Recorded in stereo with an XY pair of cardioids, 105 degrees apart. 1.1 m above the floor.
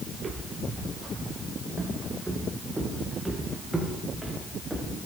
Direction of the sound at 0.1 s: 35° right.